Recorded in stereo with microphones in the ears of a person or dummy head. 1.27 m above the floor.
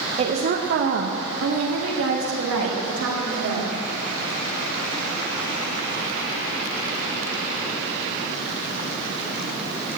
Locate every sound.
0.2 s a woman speaking: 35° right (ahead or behind), 0.8 m; by 3.7 s 85° right, 2.5 m